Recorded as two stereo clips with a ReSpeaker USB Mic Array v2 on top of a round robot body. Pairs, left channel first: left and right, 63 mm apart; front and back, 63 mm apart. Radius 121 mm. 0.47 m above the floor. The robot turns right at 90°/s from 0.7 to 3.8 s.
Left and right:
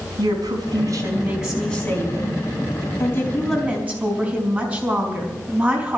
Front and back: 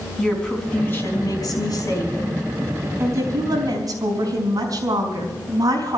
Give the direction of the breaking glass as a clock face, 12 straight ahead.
No breaking glass in this recording.